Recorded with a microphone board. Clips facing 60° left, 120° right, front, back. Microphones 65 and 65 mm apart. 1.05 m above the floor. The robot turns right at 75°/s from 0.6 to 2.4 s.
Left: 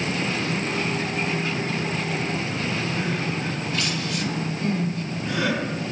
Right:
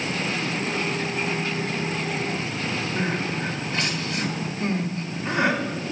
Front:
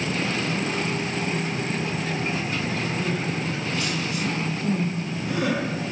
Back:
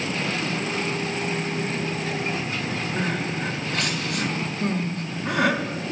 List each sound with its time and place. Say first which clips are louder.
3.0 s crying: even, even; 175° right, 1.5 m